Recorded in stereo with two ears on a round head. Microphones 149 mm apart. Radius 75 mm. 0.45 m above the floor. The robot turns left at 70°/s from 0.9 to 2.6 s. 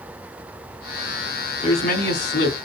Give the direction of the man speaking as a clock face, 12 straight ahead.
7 o'clock.